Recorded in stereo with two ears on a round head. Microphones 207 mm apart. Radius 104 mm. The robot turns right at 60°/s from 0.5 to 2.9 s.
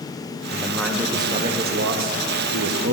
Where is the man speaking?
155° left, 0.9 m; by 2.9 s 60° right, 0.9 m.